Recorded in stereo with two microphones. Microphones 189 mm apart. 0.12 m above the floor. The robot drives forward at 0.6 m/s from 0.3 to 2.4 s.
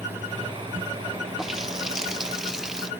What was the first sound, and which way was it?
A running tap, centre (ahead or behind).